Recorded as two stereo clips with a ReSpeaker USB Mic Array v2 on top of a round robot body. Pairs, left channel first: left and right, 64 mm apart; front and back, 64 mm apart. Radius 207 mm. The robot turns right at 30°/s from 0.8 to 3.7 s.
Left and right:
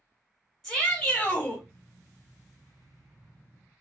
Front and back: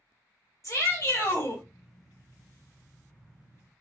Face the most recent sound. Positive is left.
turn(degrees=100)